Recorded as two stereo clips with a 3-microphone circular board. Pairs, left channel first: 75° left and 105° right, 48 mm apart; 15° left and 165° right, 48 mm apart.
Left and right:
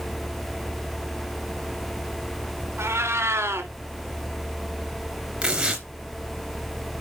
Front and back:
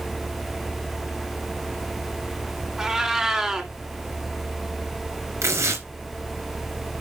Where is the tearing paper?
175° right, 3 m.